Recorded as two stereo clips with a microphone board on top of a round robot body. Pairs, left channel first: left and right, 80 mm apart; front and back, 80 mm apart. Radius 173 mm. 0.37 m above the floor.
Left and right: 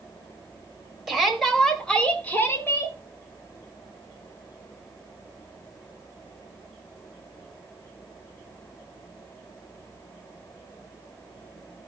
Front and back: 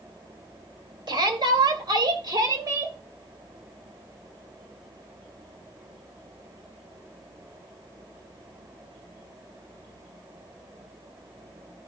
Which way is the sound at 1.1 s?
175° right.